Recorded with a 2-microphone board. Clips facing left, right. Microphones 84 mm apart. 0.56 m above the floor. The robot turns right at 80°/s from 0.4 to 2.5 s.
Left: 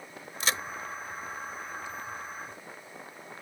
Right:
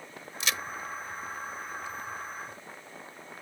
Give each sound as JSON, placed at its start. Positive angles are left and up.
{"t": 0.4, "sound": "a crack", "side_deg": 40}